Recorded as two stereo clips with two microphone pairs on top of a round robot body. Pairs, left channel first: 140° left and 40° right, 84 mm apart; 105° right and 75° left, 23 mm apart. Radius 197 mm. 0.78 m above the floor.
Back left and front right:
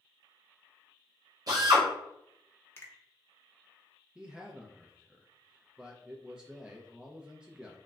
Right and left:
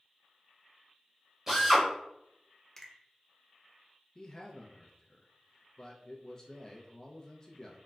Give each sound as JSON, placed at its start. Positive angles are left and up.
{"t": 1.5, "sound": "a drill", "azimuth_deg": 5, "distance_m": 0.7}
{"t": 2.8, "sound": "a finger snap", "azimuth_deg": -165, "distance_m": 0.9}
{"t": 4.2, "sound": "a man speaking", "azimuth_deg": -105, "distance_m": 0.6}